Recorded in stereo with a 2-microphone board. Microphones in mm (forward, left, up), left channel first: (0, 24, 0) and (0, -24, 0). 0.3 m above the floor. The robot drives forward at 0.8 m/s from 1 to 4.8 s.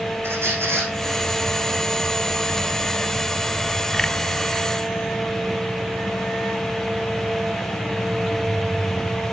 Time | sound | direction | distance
0.2 | a squeak | 60° right (ahead or behind) | 6 m